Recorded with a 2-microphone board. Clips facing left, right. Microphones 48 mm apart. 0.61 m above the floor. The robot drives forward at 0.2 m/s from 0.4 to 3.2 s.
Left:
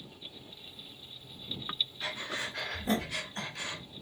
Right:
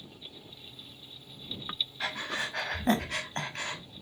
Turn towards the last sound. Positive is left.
turn(degrees=-60)  # may be behind; listen again after turning